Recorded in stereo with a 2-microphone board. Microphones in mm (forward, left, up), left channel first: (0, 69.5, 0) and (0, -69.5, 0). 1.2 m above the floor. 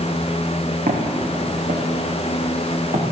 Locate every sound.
0.9 s footsteps: 70° right (ahead or behind), 5 m